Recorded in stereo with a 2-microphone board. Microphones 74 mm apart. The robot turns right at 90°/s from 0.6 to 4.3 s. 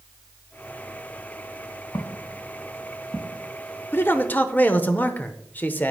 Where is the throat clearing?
No throat clearing in this recording.